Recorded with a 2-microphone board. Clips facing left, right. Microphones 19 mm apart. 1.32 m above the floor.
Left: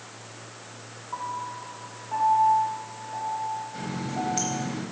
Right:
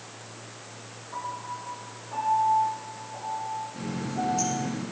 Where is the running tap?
80° left, 4.5 m.